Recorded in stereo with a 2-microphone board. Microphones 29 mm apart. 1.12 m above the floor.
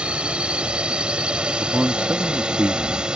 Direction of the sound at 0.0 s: 40° right (ahead or behind).